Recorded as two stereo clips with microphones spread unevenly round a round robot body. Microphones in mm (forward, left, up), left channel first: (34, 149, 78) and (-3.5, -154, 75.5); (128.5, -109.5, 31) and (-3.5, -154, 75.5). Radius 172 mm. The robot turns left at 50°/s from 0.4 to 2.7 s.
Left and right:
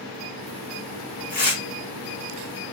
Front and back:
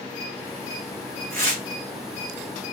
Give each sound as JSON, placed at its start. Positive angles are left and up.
{"t": 1.3, "sound": "tearing paper", "azimuth_deg": 150, "distance_m": 2.5}